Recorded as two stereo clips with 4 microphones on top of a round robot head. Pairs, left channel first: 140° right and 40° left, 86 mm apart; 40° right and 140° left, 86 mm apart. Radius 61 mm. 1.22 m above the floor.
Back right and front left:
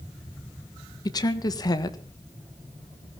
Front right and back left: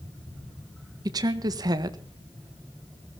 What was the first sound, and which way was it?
A woman speaking, straight behind.